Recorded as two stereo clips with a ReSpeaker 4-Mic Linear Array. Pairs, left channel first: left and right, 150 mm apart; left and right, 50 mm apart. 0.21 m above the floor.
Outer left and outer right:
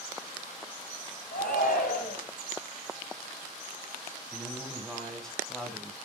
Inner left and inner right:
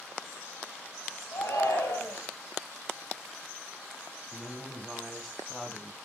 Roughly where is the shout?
Left.